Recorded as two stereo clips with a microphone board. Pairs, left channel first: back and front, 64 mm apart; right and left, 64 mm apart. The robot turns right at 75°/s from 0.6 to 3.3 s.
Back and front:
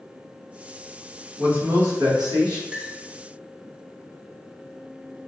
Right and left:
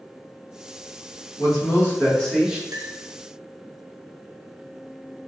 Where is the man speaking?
75° right, 1.1 m; by 2.6 s 20° left, 1.1 m.